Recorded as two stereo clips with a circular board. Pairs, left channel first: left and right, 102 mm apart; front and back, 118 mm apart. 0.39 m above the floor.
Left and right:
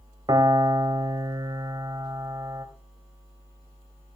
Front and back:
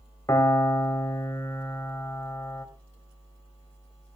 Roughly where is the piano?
Ahead right.